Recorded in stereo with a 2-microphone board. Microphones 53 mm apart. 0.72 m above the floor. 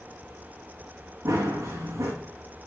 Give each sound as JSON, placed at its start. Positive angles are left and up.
{"t": 1.2, "sound": "running footsteps", "side_deg": -65, "distance_m": 2.5}